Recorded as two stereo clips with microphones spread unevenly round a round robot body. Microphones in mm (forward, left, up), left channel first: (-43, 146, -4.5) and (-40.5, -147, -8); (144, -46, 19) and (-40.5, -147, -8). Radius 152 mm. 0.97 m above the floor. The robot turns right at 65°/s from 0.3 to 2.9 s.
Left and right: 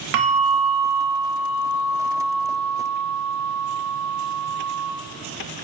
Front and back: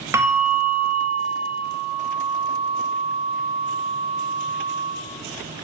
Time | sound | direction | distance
0.1 | a bell | 70° right | 0.6 m